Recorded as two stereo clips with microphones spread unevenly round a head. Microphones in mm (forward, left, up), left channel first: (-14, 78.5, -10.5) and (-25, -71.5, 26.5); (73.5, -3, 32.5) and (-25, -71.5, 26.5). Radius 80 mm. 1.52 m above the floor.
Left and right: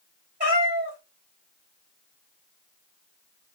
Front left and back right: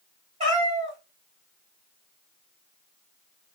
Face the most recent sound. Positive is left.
turn(degrees=-110)